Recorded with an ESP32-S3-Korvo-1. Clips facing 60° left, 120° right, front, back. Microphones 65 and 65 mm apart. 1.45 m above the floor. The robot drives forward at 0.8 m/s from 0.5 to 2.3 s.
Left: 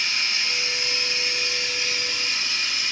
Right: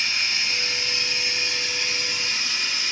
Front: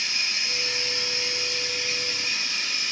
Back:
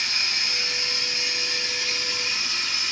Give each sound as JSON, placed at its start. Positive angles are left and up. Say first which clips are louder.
{"t": 0.0, "sound": "running water", "louder": "even, back 2 dB", "azimuth_deg": 140, "distance_m": 4.5}